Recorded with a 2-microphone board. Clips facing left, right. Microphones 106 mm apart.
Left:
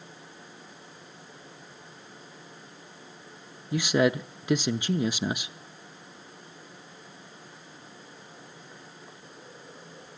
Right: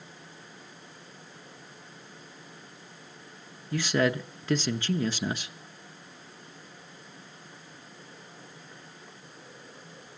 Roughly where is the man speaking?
Centre.